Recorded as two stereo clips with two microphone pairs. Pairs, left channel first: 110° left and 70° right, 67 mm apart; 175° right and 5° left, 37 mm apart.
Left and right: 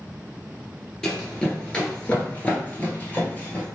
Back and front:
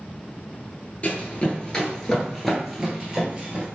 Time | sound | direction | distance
1.0 | running footsteps | straight behind | 1.3 m